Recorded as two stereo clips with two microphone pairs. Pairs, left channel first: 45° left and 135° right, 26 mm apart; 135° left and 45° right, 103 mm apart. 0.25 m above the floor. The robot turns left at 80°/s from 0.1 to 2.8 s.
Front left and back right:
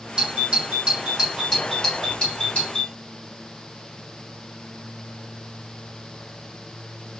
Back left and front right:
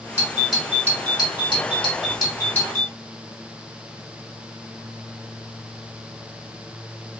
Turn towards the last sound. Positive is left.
turn(degrees=45)